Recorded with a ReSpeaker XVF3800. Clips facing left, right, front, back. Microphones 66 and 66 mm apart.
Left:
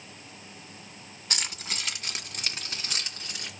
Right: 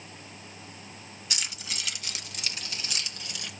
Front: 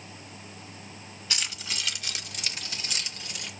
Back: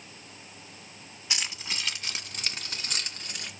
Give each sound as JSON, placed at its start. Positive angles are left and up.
{"t": 1.3, "sound": "keys jangling", "azimuth_deg": 115, "distance_m": 1.4}